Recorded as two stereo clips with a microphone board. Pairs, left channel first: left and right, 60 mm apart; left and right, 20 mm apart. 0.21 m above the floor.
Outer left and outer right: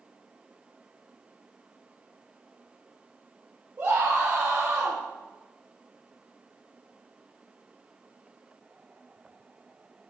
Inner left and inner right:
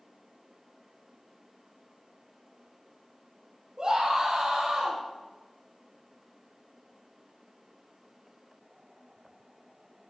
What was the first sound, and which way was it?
A scream, 40° right (ahead or behind).